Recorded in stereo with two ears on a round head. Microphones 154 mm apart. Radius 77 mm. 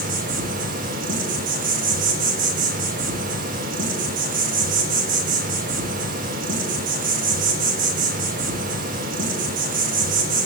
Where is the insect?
50° right (ahead or behind), 0.7 m.